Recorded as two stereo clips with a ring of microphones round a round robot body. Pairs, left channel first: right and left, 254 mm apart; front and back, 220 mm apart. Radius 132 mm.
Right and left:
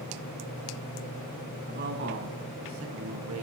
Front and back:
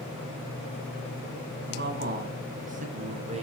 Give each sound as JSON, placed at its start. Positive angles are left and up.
{"t": 1.7, "sound": "a man speaking", "azimuth_deg": 145, "distance_m": 3.5}